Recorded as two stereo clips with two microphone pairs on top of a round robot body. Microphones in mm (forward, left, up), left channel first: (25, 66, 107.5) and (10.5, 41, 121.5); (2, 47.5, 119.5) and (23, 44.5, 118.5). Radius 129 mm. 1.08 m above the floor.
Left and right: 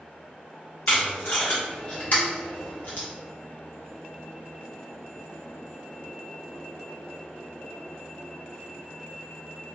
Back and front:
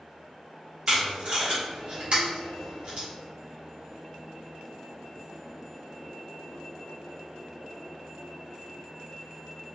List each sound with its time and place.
0.9 s tape being pulled: 10° left, 1.0 m